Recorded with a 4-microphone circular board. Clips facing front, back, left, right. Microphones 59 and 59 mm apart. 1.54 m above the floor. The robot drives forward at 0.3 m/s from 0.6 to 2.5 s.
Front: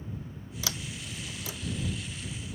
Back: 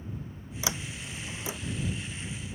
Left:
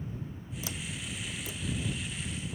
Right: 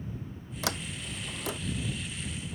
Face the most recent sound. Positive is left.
turn(degrees=-110)